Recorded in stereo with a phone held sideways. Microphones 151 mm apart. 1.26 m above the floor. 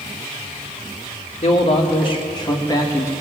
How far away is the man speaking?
About 1.9 m.